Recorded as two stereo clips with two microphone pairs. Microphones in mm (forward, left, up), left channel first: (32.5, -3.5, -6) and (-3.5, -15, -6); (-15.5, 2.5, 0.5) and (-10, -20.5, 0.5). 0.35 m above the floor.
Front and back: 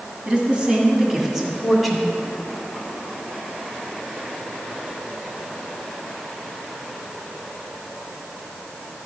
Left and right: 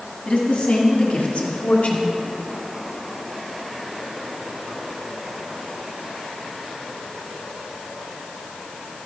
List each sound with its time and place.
0.2 s a woman speaking: 145° left, 2 m; by 2.2 s 105° left, 1.9 m